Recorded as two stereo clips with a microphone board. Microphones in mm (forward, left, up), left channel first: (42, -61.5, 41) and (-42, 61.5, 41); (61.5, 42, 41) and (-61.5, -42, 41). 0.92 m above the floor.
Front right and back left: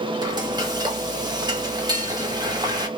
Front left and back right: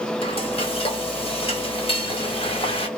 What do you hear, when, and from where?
0.2 s frying: 70° left, 1.0 m